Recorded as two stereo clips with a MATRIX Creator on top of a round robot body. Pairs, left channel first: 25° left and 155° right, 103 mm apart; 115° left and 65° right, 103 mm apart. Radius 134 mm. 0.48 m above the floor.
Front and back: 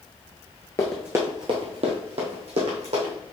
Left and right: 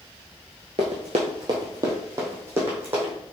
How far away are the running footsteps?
About 0.5 m.